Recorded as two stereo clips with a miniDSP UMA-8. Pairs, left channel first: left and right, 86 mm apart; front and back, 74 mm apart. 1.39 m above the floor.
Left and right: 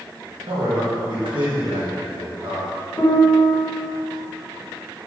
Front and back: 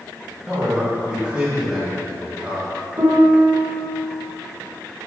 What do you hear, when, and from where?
0.5 s a man speaking: 105° right, 1.9 m
3.0 s a piano: 150° left, 1.3 m